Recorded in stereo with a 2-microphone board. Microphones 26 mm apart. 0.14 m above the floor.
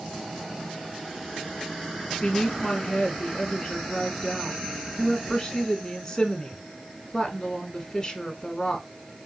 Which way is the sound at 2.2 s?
20° left (ahead or behind).